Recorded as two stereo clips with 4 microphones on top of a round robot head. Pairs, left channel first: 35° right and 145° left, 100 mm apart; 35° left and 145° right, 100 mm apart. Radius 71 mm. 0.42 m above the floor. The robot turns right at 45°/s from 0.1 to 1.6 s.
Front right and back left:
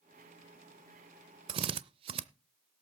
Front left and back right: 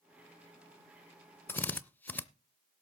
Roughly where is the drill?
Left.